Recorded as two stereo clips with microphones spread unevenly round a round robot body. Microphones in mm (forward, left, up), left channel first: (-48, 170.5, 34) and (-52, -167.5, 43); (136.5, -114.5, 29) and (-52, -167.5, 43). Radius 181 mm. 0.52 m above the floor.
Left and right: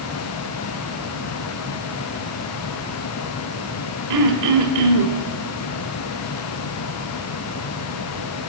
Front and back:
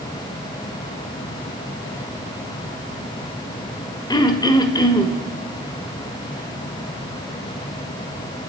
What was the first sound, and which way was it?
Throat clearing, 50° right.